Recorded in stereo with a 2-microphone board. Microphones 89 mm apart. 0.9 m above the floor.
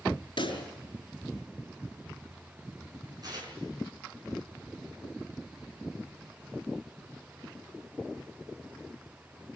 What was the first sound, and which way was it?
A pop, 60° left (ahead or behind).